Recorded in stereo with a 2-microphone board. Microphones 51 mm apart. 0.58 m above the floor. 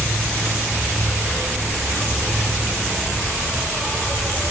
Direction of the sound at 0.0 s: 10° right (ahead or behind).